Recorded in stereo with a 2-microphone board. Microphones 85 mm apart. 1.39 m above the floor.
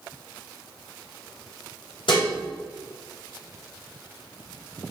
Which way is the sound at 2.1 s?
80° left.